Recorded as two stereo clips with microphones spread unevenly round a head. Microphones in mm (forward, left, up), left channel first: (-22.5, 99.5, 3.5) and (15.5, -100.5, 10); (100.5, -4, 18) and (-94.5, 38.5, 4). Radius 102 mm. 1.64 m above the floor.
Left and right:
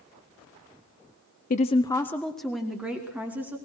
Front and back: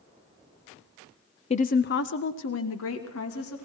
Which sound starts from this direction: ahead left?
A woman speaking, at 1.5 s.